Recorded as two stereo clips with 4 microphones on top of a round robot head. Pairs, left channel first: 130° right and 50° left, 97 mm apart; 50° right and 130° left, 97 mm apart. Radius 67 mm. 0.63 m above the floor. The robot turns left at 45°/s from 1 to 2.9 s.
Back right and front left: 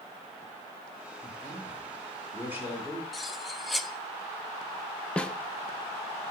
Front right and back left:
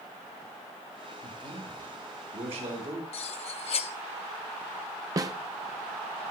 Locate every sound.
1.2 s a man speaking: straight behind, 5 m; by 3.0 s 105° left, 5 m
3.1 s cutlery clinking: 45° right, 0.8 m
5.2 s a snare drum: 155° left, 0.7 m